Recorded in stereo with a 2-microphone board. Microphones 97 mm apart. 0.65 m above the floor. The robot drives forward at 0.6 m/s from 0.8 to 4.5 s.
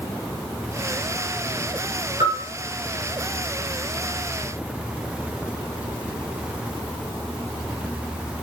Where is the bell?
75° right (ahead or behind), 6.5 m.